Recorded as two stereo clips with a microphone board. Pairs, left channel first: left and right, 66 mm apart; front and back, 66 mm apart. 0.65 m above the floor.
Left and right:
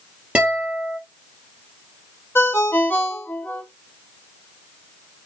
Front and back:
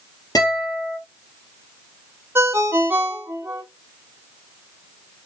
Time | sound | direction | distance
0.3 | a guitar | 20° right | 2.5 m
2.4 | a ringtone | 135° left | 1.1 m